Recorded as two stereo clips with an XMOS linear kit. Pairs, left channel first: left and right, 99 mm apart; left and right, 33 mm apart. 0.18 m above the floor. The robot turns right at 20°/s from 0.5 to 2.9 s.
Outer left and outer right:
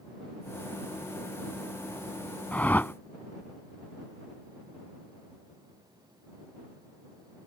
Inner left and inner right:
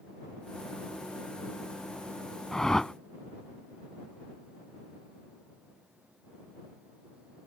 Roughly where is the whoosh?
Centre.